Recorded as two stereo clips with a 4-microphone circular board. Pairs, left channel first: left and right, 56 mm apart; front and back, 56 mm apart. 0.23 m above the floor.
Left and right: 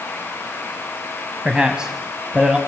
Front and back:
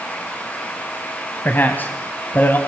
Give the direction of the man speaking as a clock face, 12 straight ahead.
1 o'clock.